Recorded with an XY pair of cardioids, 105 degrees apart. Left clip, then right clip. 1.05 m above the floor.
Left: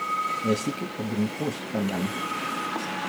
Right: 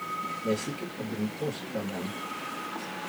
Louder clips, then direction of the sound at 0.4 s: Left 4 dB; 70° left.